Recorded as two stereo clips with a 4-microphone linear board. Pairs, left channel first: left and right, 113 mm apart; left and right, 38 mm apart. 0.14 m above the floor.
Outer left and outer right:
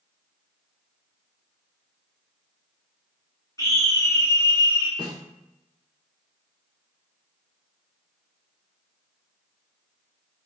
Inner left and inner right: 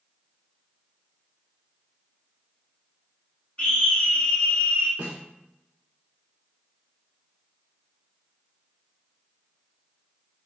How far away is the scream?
About 1.3 m.